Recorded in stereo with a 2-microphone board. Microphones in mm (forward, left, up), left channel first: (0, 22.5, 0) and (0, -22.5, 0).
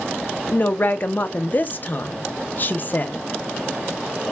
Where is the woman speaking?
40° left (ahead or behind), 0.7 m.